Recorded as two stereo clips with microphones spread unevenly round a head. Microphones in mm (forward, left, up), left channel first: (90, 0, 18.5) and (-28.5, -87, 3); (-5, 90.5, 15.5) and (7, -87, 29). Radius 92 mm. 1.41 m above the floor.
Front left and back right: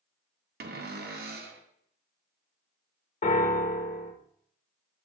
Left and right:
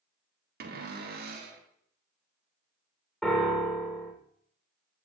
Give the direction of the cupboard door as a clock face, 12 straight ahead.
4 o'clock.